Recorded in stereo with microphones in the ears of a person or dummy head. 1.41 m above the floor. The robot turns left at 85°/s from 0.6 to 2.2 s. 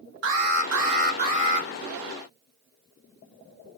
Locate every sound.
0.2 s an alarm: 75° right, 1.0 m; by 1.7 s 165° right, 1.0 m